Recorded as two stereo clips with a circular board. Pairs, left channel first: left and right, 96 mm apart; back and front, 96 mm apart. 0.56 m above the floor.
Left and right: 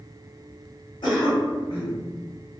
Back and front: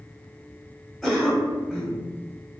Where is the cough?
80° left, 0.9 m.